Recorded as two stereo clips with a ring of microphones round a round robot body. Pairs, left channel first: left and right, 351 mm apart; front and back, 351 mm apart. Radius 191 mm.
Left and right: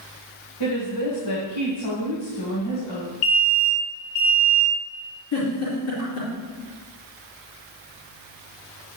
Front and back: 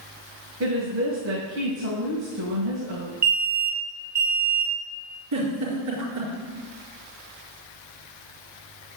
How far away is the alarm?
About 2.5 m.